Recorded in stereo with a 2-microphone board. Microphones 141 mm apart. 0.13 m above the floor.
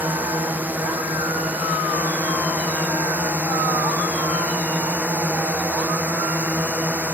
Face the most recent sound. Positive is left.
turn(degrees=-10)  # may be behind; listen again after turning